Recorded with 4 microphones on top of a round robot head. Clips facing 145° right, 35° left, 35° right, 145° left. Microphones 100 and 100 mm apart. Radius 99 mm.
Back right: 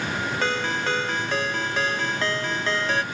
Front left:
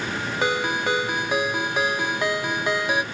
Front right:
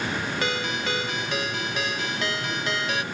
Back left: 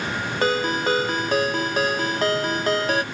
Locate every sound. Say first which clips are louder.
0.4 s a ringtone: front left 4 dB, back left 11 dB; 110° left, 0.6 m